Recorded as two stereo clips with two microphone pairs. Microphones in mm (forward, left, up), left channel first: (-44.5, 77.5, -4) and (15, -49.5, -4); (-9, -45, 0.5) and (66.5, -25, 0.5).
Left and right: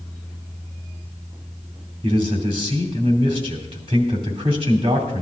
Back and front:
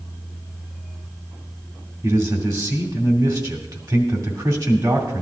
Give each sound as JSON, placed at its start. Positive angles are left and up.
{"t": 2.0, "sound": "a man speaking", "azimuth_deg": -20, "distance_m": 2.5}